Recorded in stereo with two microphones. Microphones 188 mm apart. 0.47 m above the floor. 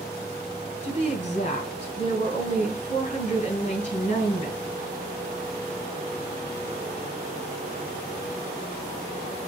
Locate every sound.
0.8 s a woman speaking: 40° left (ahead or behind), 6 m